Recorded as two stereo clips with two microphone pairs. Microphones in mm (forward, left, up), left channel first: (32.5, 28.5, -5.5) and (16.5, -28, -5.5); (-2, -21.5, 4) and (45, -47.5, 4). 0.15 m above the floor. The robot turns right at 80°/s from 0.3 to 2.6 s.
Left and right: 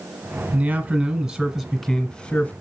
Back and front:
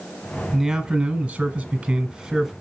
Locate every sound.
0.5 s a man speaking: 105° right, 1.4 m; by 2.5 s 55° left, 1.4 m